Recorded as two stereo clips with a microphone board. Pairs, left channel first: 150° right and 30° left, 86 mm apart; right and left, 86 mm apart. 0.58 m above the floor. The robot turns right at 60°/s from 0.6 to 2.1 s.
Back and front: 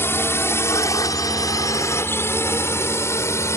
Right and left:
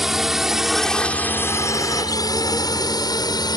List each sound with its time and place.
0.0 s a drone: 175° left; by 3.6 s 100° right